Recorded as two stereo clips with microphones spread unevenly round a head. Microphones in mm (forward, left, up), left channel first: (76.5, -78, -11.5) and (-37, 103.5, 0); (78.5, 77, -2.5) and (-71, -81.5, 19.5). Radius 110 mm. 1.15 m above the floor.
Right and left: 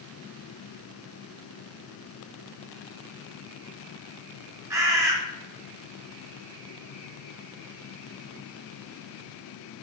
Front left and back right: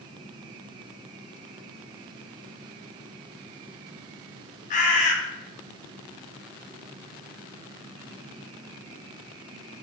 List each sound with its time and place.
4.7 s a bird: 50° left, 0.6 m